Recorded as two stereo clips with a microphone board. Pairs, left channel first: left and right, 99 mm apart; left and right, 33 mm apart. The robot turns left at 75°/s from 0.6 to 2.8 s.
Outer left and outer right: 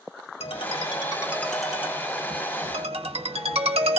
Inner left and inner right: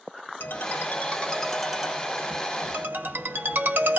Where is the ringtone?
75° left, 0.9 m; by 4.0 s 90° right, 0.9 m.